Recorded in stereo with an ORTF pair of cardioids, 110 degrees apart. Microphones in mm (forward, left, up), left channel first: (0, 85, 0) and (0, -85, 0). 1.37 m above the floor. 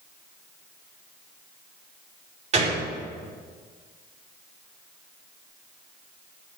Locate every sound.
2.5 s a gunshot: 45° right, 4.5 m